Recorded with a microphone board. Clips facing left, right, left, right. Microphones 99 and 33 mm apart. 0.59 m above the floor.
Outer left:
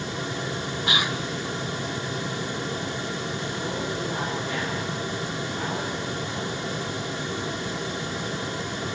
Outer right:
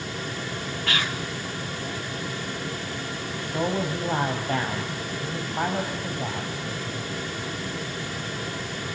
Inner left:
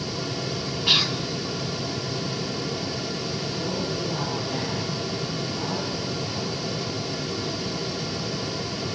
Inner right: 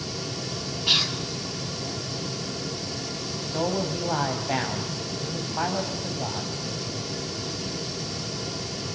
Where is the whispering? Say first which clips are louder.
Outer left 2 dB, inner left 2 dB; 15° left (ahead or behind), 1.2 m.